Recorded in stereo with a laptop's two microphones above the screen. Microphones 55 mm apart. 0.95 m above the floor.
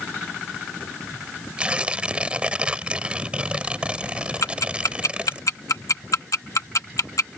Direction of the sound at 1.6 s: 20° right (ahead or behind).